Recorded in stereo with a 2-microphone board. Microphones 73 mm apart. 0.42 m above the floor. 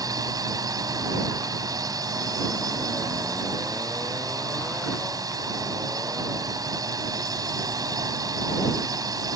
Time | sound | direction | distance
0.0 | a drone | 60° right (ahead or behind) | ?